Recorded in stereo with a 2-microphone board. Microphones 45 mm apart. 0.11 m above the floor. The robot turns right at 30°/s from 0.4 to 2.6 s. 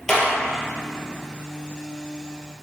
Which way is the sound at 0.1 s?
10° left (ahead or behind).